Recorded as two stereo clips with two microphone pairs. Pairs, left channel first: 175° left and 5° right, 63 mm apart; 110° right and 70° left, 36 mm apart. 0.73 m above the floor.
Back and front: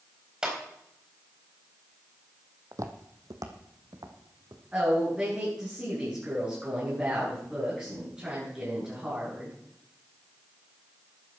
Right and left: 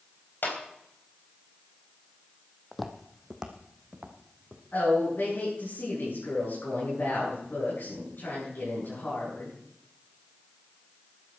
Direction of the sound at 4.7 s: 75° right.